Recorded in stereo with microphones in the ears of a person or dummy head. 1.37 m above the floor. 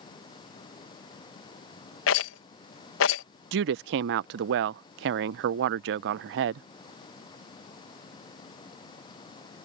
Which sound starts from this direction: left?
A rattle, at 2.1 s.